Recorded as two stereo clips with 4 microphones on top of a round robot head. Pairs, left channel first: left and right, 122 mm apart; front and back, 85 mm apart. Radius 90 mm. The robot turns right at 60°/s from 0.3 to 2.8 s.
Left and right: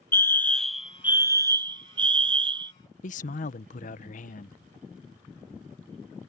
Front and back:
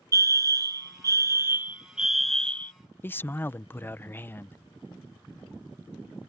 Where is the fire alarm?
155° left; by 2.7 s 60° right.